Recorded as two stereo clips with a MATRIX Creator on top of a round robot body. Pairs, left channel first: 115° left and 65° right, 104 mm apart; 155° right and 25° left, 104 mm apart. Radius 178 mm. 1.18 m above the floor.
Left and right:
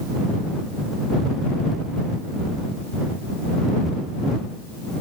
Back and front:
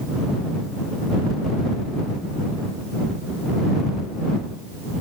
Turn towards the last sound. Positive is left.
No sound to turn to.